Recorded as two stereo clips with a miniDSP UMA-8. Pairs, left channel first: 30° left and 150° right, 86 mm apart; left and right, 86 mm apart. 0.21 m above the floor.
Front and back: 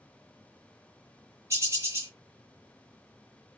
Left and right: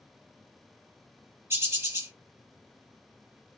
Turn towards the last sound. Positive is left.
turn(degrees=-120)